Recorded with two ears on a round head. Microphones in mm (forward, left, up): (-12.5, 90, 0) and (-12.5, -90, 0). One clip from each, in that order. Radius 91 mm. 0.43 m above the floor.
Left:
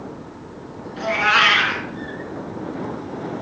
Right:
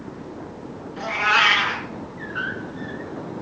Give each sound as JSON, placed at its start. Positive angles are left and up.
{"t": 1.0, "sound": "a cat meowing", "side_deg": 5, "distance_m": 2.5}